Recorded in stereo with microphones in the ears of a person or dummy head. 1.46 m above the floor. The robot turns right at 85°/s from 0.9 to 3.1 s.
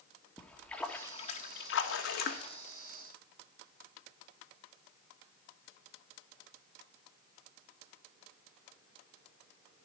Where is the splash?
5° left, 1.6 m; by 2.6 s 150° left, 1.6 m.